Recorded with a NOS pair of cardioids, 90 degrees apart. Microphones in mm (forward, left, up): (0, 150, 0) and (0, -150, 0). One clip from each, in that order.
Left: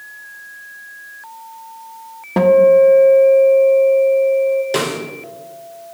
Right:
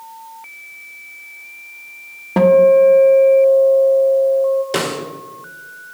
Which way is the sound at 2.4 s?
5° right.